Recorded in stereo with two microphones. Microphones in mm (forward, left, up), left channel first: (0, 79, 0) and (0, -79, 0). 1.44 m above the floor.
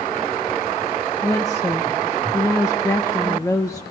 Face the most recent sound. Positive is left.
turn(degrees=20)  # may be behind; listen again after turning